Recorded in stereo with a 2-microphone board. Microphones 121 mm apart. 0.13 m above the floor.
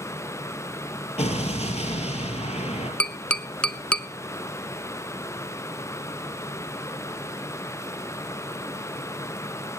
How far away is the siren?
No siren in this recording.